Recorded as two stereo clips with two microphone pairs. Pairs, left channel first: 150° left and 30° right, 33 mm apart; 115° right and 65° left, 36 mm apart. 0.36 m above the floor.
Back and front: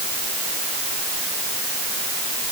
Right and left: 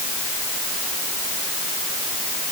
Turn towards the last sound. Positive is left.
No sound to turn to.